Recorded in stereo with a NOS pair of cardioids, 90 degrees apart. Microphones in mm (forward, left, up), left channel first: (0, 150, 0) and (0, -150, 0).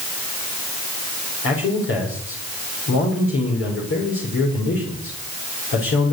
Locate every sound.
1.4 s a man speaking: 45° left, 5 m